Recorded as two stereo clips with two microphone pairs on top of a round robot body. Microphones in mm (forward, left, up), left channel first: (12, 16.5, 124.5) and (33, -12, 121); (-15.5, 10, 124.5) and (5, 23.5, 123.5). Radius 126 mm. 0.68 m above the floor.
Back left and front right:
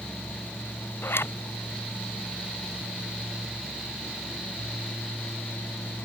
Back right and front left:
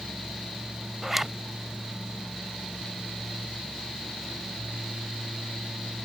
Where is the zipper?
115° left.